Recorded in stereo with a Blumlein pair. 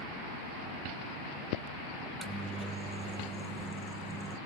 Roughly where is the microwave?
Ahead.